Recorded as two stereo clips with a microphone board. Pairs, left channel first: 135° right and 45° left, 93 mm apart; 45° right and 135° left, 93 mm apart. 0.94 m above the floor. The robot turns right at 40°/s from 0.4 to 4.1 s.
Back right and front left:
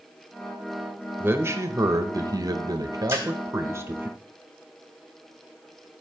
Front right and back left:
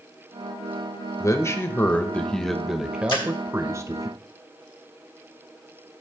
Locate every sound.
1.2 s a man speaking: 10° right, 0.9 m; by 4.1 s 105° left, 0.9 m
3.1 s a splash: 20° right, 2 m; by 3.2 s 15° right, 2 m